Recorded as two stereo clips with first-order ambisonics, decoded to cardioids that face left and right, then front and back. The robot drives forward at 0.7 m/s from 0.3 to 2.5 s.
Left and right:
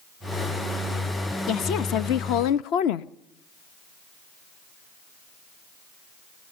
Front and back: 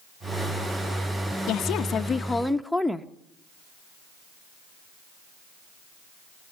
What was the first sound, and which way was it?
A woman speaking, 40° left.